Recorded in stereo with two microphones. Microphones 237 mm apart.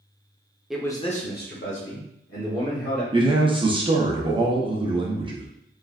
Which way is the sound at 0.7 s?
Centre (ahead or behind).